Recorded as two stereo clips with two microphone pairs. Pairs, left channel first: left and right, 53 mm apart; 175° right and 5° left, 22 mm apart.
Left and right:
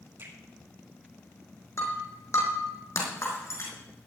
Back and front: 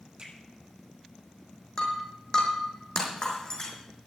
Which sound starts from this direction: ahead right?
A finger snap, at 0.2 s.